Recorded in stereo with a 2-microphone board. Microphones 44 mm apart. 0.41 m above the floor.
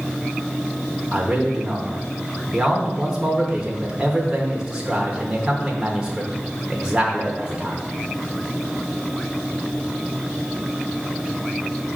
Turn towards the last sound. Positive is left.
turn(degrees=-15)  # may be behind; listen again after turning